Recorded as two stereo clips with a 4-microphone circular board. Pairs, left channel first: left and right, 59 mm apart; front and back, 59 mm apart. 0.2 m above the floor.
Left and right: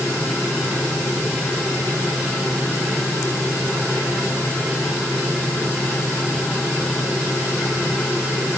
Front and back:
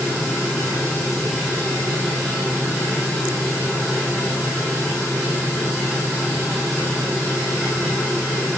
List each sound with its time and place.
Only background noise.